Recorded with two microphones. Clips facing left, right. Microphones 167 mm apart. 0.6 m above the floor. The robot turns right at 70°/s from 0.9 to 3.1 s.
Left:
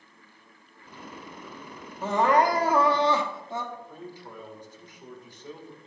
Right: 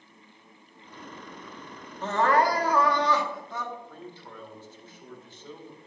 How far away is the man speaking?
About 1.9 m.